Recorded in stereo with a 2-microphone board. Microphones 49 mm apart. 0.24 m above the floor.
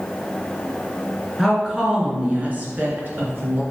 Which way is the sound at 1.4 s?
10° right (ahead or behind).